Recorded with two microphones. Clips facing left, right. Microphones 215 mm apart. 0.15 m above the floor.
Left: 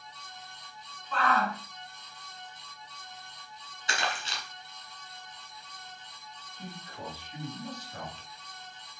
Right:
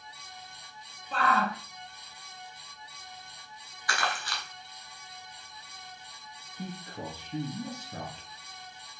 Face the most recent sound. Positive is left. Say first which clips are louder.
# right 4 dB
turn(degrees=-50)  # may be behind; listen again after turning